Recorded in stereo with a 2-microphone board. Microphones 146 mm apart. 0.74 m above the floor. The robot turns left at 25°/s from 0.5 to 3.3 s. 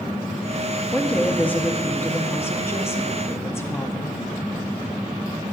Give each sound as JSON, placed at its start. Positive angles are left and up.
{"t": 0.9, "sound": "a woman speaking", "side_deg": 5, "distance_m": 0.6}